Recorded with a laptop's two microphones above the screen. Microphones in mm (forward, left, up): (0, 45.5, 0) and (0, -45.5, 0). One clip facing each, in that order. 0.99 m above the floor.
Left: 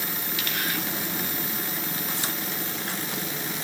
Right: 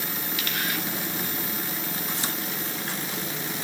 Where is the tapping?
I don't hear tapping.